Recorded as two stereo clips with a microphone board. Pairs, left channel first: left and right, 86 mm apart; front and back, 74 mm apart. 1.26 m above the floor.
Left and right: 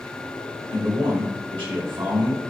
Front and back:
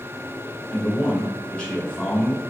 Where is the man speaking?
75° right, 1.5 m.